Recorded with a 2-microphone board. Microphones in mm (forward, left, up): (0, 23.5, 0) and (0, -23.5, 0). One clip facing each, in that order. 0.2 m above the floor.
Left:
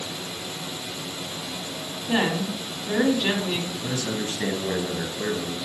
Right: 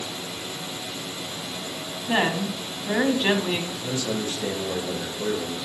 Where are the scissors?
I don't hear scissors.